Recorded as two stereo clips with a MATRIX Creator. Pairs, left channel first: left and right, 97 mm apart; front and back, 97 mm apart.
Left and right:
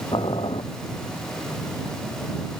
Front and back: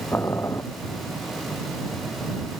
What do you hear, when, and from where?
0.1 s boiling: 65° left